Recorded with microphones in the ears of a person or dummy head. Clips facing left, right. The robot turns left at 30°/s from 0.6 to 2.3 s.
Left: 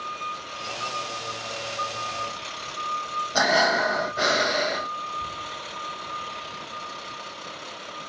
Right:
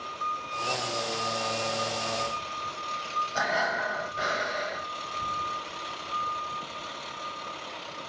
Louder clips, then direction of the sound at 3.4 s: Left 8 dB; 65° left (ahead or behind).